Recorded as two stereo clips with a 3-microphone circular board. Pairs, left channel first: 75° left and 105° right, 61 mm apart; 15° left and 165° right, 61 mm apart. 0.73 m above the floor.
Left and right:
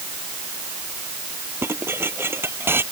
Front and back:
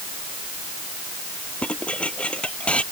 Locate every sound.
1.6 s dishes clattering: 55° right